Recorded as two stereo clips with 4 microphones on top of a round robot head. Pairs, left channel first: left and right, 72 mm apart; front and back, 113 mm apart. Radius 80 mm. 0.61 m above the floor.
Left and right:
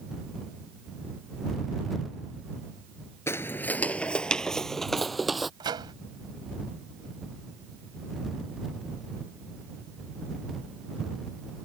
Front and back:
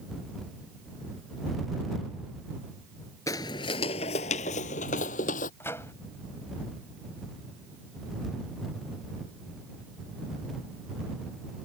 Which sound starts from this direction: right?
A microwave, at 5.6 s.